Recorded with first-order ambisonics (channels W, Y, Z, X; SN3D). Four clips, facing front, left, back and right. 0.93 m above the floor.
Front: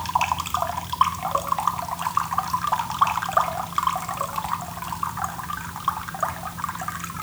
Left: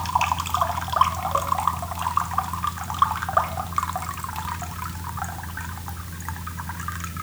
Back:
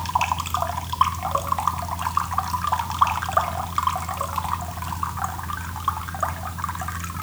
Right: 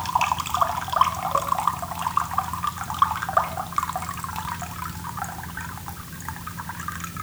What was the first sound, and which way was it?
Only background noise.